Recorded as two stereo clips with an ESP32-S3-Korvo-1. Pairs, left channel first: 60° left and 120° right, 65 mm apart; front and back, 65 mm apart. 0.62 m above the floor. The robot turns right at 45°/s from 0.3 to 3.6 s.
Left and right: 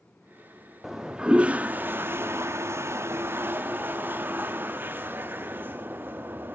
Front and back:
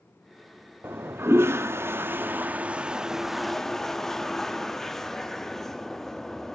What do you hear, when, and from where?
0.8 s a toilet flushing: 155° left, 0.7 m; by 6.6 s 80° right, 0.7 m